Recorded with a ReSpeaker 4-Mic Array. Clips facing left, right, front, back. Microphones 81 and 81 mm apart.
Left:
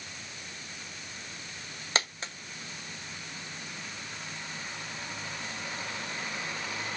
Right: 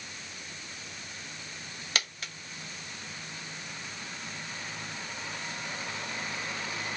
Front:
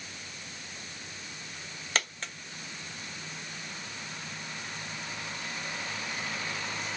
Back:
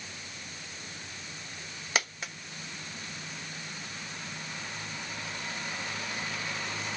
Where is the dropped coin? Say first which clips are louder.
Left 4 dB, back 1 dB; 105° left, 0.9 m.